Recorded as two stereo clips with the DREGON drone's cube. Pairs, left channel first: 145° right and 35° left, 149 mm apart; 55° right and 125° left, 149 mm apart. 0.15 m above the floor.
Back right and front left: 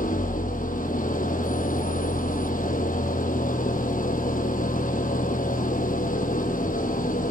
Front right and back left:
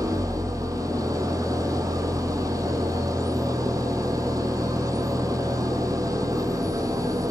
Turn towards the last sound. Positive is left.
turn(degrees=-170)